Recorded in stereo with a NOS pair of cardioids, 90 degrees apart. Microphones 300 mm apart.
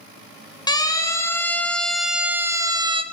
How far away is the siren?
About 2.5 m.